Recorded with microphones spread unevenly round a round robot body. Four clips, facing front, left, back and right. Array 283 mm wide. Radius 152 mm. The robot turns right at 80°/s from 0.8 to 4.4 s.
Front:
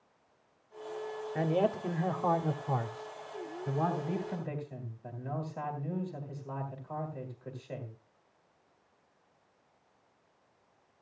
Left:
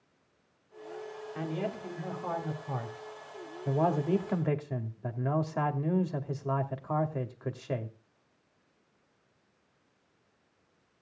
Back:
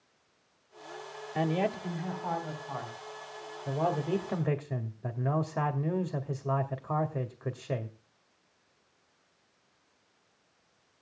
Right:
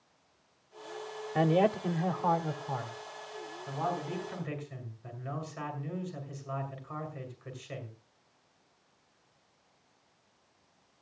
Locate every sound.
1.4 s a man speaking: 95° right, 2.5 m; by 8.0 s 150° left, 2.5 m